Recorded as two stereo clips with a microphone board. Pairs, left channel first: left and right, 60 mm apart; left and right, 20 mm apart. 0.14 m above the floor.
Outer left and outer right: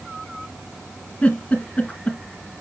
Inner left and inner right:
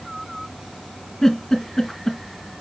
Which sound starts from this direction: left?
A giggle, at 1.2 s.